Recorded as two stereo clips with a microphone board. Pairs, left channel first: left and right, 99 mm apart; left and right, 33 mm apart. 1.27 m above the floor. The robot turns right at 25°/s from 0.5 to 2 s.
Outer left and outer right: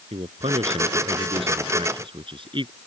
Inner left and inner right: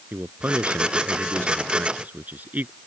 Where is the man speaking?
95° right; by 2.8 s 60° right.